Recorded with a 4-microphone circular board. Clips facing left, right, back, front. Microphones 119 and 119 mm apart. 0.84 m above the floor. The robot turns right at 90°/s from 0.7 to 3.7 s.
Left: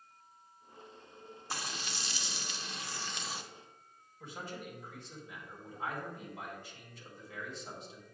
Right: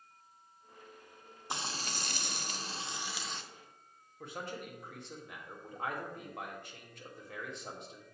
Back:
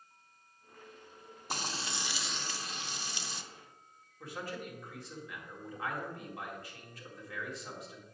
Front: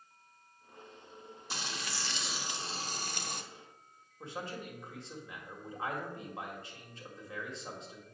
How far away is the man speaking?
About 1.7 m.